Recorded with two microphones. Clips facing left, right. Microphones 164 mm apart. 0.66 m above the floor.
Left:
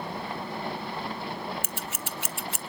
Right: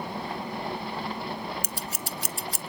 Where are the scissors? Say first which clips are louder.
Right 1 dB; 40° right (ahead or behind), 0.7 m.